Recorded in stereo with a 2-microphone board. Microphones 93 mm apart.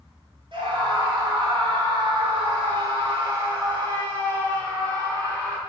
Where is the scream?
70° right (ahead or behind), 3 m; by 5.6 s 40° right (ahead or behind), 3 m.